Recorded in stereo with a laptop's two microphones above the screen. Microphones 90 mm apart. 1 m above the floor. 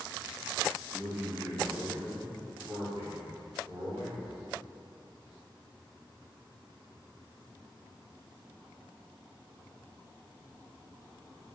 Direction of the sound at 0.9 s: 5° right (ahead or behind).